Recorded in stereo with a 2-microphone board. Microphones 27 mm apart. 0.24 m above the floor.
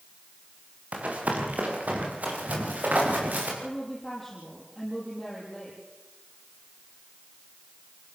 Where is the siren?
I don't hear a siren.